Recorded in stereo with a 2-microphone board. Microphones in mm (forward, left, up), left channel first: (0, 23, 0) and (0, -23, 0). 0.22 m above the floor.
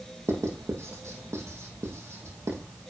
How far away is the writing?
About 4 m.